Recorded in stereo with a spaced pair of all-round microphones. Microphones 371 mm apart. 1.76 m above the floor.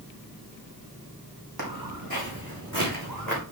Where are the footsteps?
70° right (ahead or behind), 4.5 m; by 3.4 s 60° right (ahead or behind), 6 m.